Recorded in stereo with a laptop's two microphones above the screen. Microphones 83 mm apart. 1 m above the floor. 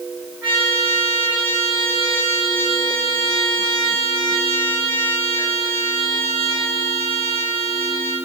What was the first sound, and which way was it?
A trumpet, 20° right (ahead or behind).